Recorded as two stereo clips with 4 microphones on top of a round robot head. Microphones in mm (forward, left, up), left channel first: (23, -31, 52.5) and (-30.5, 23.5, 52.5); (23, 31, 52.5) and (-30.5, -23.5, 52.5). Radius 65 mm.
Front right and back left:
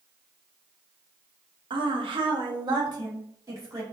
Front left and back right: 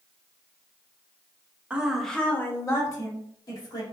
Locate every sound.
1.7 s a woman speaking: 155° left, 0.9 m; by 3.8 s 80° left, 2.5 m